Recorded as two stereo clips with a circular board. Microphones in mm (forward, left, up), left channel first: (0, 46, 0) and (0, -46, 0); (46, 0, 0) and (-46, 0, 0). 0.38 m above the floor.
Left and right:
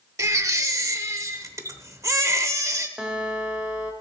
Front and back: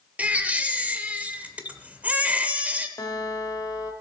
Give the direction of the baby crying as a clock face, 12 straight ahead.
4 o'clock.